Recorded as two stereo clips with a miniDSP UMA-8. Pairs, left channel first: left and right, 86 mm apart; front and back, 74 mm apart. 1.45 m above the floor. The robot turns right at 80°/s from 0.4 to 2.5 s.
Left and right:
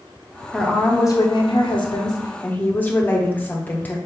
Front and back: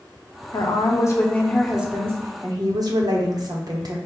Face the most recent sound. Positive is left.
turn(degrees=160)